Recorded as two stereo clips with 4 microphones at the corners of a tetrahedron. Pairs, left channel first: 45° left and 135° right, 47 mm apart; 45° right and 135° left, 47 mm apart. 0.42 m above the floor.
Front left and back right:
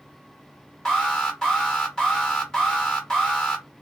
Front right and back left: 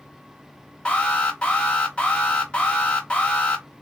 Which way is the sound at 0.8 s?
10° right.